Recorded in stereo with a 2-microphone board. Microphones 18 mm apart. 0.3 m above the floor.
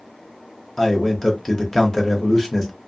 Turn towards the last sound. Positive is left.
turn(degrees=20)  # may be behind; listen again after turning